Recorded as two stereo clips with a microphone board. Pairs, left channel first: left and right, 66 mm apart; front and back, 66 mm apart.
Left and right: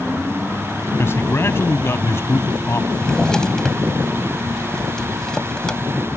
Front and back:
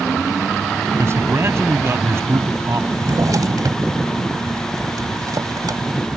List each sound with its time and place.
1.0 s a man speaking: 135° left
2.9 s a drawer: 170° left